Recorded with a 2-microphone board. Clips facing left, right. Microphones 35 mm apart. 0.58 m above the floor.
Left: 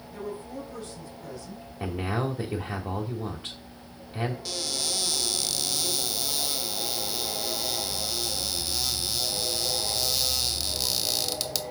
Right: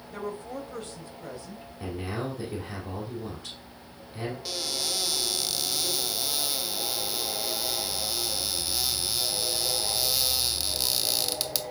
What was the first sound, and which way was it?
A woman speaking, 50° right (ahead or behind).